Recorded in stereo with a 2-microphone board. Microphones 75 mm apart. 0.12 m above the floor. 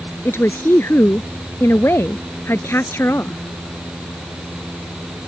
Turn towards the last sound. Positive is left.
turn(degrees=35)  # may be behind; listen again after turning